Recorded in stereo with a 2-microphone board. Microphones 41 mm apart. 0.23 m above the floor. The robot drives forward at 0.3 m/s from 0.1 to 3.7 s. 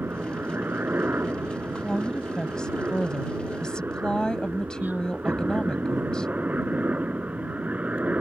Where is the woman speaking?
20° left (ahead or behind).